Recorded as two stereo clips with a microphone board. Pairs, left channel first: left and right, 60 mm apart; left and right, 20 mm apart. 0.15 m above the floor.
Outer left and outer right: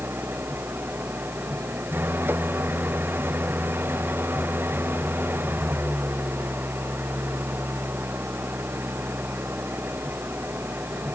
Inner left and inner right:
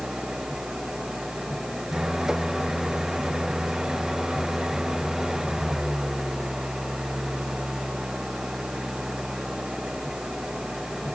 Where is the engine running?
35° right (ahead or behind).